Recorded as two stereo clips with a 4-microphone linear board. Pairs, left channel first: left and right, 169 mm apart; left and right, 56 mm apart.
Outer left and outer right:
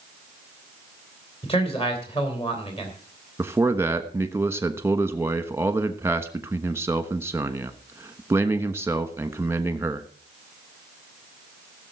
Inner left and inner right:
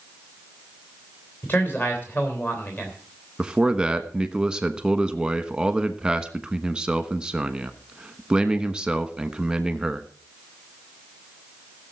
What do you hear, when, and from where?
1.4 s a man speaking: 35° left (ahead or behind), 3 m
3.4 s a man speaking: 15° right (ahead or behind), 1.2 m